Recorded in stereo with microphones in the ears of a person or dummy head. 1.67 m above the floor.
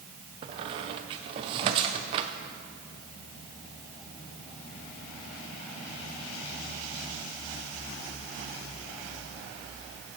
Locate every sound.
0.4 s a squeak: 25° right (ahead or behind), 0.5 m